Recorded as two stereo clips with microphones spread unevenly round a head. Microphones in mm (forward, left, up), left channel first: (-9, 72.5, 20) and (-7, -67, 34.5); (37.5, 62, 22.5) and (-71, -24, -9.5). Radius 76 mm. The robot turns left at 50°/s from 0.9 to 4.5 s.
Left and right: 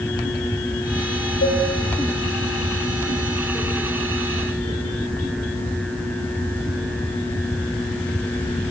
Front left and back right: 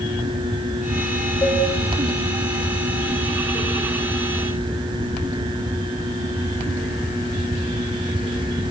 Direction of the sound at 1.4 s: 105° left.